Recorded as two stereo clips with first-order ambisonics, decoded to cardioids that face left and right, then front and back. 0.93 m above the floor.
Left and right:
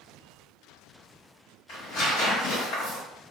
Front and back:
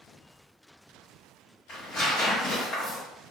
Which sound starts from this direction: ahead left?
Tearing paper, at 1.7 s.